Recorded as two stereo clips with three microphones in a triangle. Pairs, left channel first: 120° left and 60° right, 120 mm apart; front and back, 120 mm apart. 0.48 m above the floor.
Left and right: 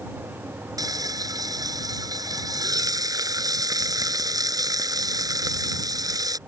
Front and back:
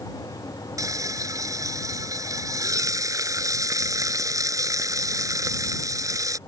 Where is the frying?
120° right.